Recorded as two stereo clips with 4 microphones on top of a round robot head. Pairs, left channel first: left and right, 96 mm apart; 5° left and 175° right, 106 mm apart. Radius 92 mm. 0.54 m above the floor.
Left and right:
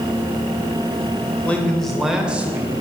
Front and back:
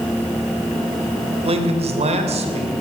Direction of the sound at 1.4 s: 165° left.